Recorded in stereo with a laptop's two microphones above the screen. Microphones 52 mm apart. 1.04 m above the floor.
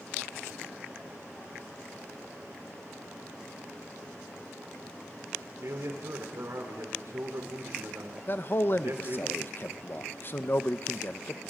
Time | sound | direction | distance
5.6 | a man speaking | 75° right (ahead or behind) | 4 m
8.3 | a man speaking | 40° left (ahead or behind) | 0.8 m